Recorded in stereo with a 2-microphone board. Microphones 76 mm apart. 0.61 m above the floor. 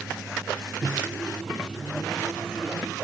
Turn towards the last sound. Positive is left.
turn(degrees=0)  # may be behind; listen again after turning